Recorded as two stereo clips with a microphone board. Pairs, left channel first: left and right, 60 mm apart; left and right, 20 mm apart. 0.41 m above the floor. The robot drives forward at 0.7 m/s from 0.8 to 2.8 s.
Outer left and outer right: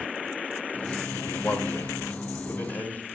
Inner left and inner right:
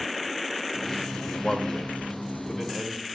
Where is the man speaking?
35° left (ahead or behind), 1.2 m; by 3.0 s 30° left (ahead or behind), 1.5 m.